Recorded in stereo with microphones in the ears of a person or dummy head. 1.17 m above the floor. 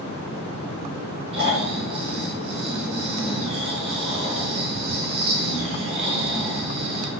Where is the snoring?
25° right (ahead or behind), 1.0 m.